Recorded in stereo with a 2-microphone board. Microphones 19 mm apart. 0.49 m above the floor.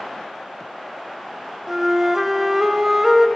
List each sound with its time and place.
1.7 s a flute: 25° right (ahead or behind), 0.6 m